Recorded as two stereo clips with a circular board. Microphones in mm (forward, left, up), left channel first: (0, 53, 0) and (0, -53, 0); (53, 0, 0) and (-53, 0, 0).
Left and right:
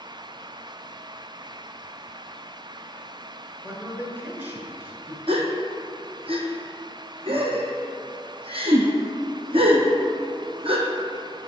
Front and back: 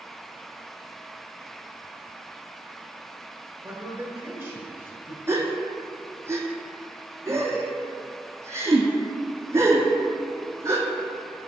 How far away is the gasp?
About 0.9 m.